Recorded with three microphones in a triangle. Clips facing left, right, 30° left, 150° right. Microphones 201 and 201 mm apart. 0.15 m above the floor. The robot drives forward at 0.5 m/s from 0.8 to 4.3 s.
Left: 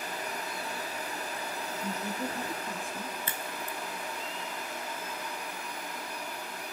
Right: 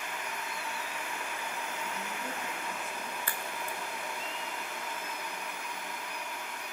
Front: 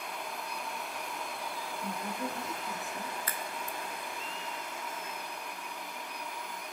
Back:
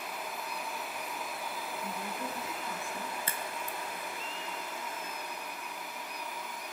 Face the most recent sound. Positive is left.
turn(degrees=165)